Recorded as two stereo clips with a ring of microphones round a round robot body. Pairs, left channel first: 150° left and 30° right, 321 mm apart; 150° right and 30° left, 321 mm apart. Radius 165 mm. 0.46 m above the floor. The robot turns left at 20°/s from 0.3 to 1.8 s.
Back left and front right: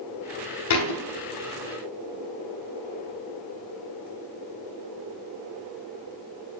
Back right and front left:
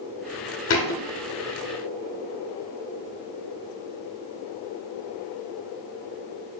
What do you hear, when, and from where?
0.7 s a thud: 160° left, 0.8 m; by 1.0 s 155° left, 0.8 m